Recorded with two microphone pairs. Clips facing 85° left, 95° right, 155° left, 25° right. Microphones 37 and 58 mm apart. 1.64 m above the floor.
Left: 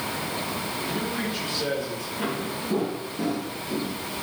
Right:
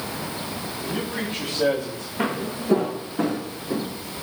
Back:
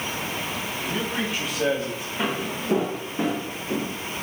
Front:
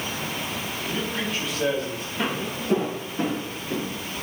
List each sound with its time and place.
0.8 s a man speaking: 135° right, 8 m
2.2 s footsteps: 130° right, 4.5 m; by 3.9 s 140° right, 3 m